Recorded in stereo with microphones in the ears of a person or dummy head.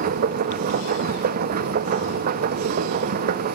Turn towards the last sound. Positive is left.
turn(degrees=-55)  # may be behind; listen again after turning